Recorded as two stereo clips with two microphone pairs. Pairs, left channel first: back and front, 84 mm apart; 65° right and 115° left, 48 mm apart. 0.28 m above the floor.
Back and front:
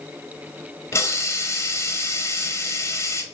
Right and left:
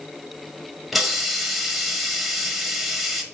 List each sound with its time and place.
0.9 s a hiss: 165° right, 0.7 m